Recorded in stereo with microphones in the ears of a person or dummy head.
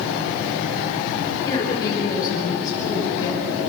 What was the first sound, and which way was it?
A woman speaking, 30° left (ahead or behind).